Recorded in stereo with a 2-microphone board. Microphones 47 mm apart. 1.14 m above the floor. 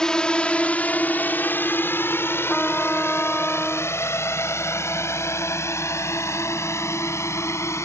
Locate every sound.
0.0 s a drone: 15° left (ahead or behind); by 7.9 s 80° left
2.5 s a trumpet: 20° left (ahead or behind)